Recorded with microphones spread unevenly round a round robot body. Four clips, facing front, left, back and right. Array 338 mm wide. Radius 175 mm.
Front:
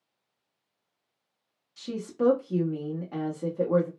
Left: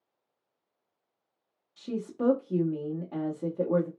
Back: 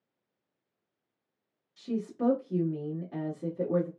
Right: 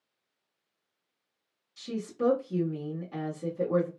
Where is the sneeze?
No sneeze in this recording.